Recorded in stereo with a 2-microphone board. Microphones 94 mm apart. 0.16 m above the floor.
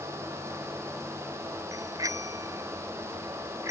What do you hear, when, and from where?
1.7 s a bicycle bell: 40° right (ahead or behind); by 3.7 s 30° right (ahead or behind)